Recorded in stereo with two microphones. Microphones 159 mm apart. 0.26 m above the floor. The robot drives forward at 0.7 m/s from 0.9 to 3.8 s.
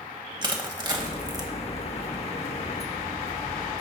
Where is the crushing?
30° right (ahead or behind), 1.5 m; by 1.5 s 25° right (ahead or behind), 1.7 m.